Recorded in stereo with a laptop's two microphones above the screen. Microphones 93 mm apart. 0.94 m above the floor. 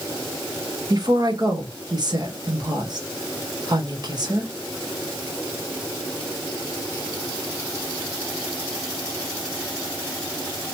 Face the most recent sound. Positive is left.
turn(degrees=-50)  # may be behind; listen again after turning